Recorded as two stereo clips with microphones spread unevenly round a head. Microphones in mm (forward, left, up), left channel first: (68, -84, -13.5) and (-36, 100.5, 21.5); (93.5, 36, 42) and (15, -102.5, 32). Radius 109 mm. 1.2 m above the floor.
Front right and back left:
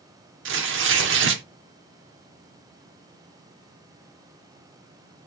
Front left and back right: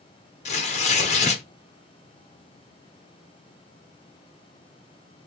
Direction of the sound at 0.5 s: 100° left.